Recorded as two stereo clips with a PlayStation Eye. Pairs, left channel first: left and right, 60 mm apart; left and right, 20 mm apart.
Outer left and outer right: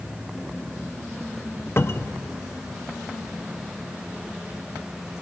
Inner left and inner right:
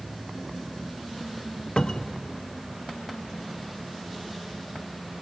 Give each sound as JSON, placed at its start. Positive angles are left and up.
{"t": 1.8, "sound": "a cupboard door", "side_deg": 45, "distance_m": 0.8}